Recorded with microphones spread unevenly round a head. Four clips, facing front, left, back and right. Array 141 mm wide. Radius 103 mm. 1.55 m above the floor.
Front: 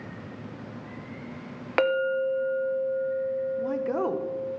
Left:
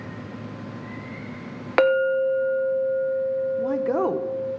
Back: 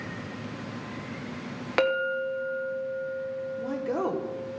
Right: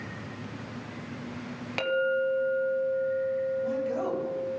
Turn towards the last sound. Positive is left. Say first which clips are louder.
# left 6 dB, front 2 dB
turn(degrees=80)